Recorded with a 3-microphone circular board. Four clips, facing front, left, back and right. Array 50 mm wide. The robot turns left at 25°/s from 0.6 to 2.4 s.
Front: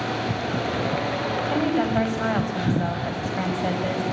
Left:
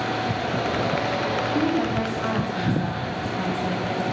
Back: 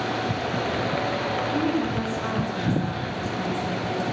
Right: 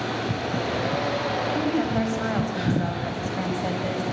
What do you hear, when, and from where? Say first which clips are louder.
1.5 s a woman speaking: left 1 dB, front 5 dB; straight ahead, 7 m; by 4.0 s 20° right, 7 m